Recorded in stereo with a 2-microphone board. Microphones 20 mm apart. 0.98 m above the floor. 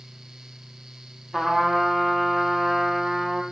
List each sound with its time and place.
1.3 s a trumpet: 15° right (ahead or behind), 0.7 m